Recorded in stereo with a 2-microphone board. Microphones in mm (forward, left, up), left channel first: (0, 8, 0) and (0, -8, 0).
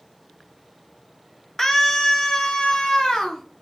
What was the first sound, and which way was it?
A scream, 35° left (ahead or behind).